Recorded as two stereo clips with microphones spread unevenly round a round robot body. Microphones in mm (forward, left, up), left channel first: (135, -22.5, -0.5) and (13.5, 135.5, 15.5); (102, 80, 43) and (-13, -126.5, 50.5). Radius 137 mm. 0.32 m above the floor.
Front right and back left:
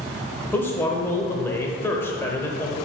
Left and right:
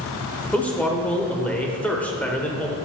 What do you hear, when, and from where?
0.5 s a man speaking: 10° right, 1.0 m